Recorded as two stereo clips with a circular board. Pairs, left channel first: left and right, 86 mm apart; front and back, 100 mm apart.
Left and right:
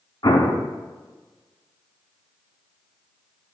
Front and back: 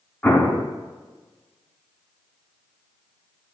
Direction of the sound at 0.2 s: 70° left.